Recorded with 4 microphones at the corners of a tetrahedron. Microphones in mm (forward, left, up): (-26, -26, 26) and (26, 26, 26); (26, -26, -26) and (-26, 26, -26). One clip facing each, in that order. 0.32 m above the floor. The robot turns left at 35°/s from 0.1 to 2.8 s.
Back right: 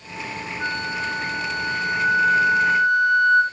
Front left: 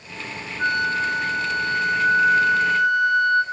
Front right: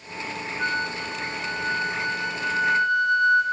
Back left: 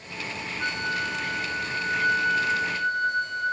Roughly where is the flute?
Ahead.